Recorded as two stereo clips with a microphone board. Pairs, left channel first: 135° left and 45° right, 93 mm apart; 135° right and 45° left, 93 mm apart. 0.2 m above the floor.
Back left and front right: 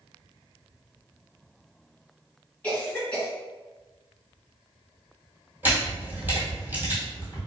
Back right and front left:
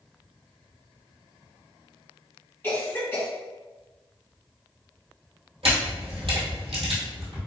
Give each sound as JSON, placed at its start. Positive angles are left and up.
{"t": 2.6, "sound": "a cough", "azimuth_deg": -170, "distance_m": 1.8}
{"t": 5.6, "sound": "a camera shutter", "azimuth_deg": 25, "distance_m": 1.3}